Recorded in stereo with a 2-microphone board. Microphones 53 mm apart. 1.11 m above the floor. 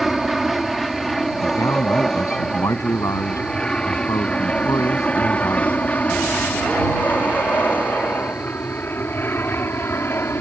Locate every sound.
0.0 s an aircraft: centre (ahead or behind); by 10.4 s 50° left (ahead or behind)
1.4 s a man speaking: 85° left